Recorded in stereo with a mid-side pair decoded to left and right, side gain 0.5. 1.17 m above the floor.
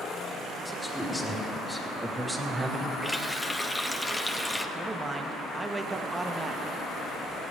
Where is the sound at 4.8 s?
20° right, 1.1 m.